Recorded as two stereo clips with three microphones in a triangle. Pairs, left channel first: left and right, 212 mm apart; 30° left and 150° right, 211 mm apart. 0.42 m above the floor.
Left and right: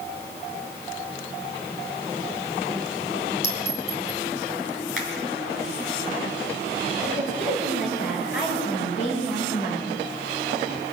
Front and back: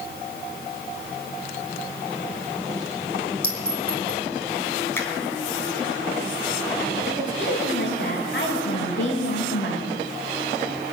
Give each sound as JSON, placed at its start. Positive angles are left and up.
{"t": 3.4, "sound": "a clink", "azimuth_deg": 150, "distance_m": 4.0}
{"t": 5.0, "sound": "a finger snap", "azimuth_deg": 110, "distance_m": 3.0}
{"t": 7.1, "sound": "a woman speaking", "azimuth_deg": 55, "distance_m": 7.0}